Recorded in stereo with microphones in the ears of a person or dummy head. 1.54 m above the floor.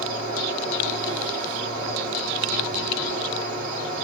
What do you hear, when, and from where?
0.0 s an insect: 45° right (ahead or behind), 1.7 m